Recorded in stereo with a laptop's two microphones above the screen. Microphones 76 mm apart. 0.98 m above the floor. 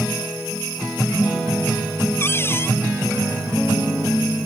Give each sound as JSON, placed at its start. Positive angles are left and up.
{"t": 2.2, "sound": "a cupboard door", "side_deg": 30}